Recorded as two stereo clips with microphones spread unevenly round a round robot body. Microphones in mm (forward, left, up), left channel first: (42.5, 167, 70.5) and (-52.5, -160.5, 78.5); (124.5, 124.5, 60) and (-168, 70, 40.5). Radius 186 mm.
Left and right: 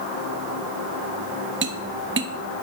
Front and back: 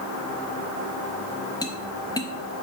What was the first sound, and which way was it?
Tapping, 65° right.